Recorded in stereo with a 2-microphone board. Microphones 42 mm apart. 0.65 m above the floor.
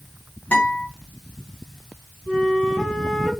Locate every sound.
0.5 s a guitar: 40° left (ahead or behind), 1.4 m
2.3 s a flute: 15° left (ahead or behind), 1.3 m